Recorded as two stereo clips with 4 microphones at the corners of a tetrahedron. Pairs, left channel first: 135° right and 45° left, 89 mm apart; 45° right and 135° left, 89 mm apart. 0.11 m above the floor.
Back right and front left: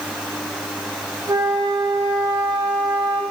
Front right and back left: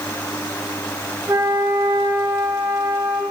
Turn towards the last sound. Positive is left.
turn(degrees=75)